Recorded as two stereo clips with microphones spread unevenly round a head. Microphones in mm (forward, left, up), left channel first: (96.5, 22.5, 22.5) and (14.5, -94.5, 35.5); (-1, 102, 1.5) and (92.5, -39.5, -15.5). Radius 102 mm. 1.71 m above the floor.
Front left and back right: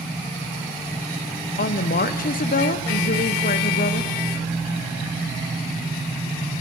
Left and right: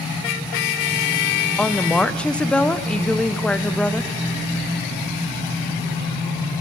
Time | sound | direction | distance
1.6 | a woman speaking | 45° left | 0.8 m